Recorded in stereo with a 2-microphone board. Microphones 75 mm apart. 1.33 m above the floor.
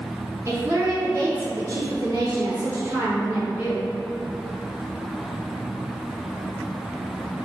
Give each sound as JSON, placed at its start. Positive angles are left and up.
{"t": 0.5, "sound": "a woman speaking", "side_deg": -40, "distance_m": 1.2}